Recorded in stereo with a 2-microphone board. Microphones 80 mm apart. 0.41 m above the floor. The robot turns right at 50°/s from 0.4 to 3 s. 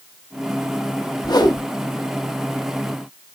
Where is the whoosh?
65° left (ahead or behind), 1.6 m; by 1.6 s 50° left (ahead or behind), 1.6 m.